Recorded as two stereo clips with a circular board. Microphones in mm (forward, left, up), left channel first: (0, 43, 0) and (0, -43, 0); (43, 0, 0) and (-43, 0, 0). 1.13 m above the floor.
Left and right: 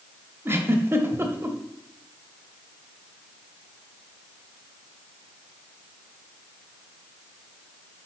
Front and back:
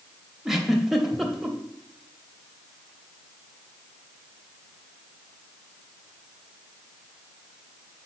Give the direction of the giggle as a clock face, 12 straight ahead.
3 o'clock.